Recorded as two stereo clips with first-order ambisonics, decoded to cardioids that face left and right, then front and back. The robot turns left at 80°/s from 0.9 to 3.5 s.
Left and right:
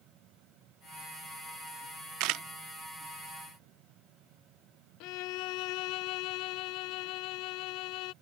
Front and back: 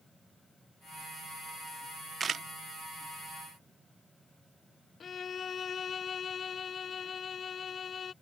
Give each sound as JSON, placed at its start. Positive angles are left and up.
{"t": 2.2, "sound": "a camera shutter", "azimuth_deg": -110}
{"t": 5.0, "sound": "a violin", "azimuth_deg": 70}